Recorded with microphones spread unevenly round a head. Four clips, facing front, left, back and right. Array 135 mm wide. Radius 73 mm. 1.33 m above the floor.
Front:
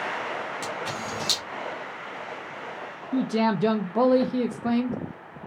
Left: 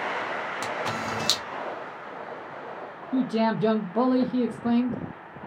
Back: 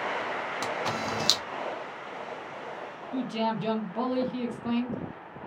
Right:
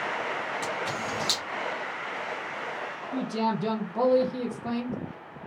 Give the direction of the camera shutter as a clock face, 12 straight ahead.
8 o'clock.